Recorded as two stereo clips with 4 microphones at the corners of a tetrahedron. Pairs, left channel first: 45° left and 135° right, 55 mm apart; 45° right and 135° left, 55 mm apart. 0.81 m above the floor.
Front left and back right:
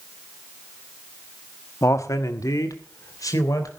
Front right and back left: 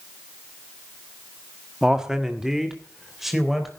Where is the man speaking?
60° left, 1.4 m; by 3.7 s 50° left, 4 m.